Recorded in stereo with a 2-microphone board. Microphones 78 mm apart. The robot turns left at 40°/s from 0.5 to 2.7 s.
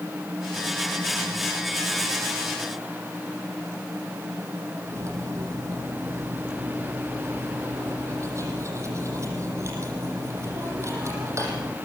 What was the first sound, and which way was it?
Cutlery clinking, 40° right (ahead or behind).